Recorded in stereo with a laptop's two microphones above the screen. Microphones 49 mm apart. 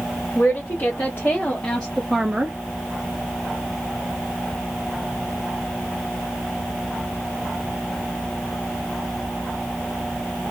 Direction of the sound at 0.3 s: 50° left (ahead or behind).